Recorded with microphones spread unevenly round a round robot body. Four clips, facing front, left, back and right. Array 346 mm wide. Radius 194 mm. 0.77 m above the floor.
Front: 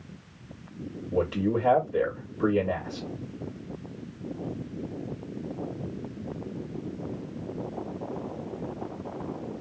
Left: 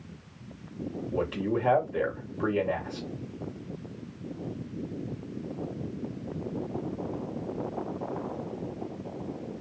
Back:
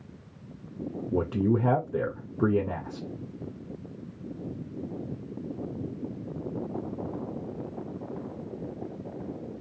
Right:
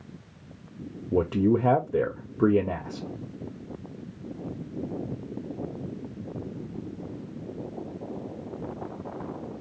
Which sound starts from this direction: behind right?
A man speaking, at 1.1 s.